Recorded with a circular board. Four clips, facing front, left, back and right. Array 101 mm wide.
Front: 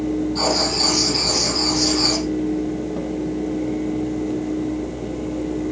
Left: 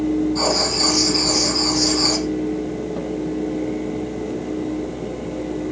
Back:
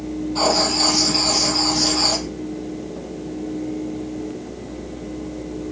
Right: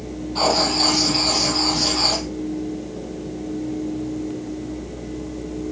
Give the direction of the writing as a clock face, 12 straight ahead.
4 o'clock.